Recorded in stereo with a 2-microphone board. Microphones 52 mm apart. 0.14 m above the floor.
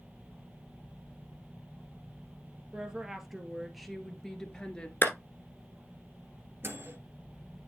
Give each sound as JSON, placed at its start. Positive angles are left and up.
{"t": 2.7, "sound": "a woman speaking", "side_deg": -15, "distance_m": 2.5}
{"t": 5.0, "sound": "a clap", "side_deg": 40, "distance_m": 1.4}
{"t": 6.6, "sound": "a microwave", "side_deg": -45, "distance_m": 2.0}